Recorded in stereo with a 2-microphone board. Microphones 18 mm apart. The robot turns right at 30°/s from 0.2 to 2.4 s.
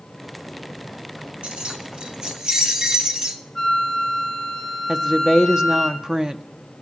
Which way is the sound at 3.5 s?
15° left (ahead or behind).